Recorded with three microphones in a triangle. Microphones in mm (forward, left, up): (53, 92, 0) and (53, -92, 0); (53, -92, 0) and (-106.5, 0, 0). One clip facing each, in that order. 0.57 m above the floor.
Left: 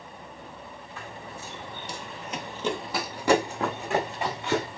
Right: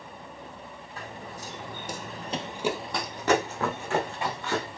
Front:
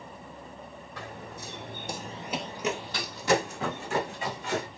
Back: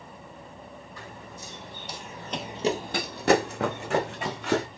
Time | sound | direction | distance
1.0 | running footsteps | 40° right | 2.0 m